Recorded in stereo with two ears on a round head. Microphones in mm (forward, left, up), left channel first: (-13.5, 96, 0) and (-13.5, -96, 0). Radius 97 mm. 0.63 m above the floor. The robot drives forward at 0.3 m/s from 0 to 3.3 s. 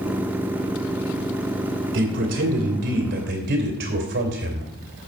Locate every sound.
1.9 s a man speaking: 60° right (ahead or behind), 2.5 m; by 4.7 s 55° right (ahead or behind), 3 m